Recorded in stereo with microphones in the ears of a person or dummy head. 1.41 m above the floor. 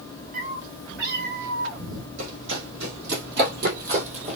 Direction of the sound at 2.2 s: 65° right (ahead or behind).